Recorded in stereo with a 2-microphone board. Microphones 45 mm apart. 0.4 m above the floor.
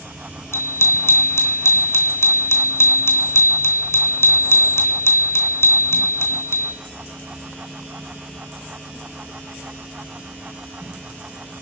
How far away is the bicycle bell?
About 3 m.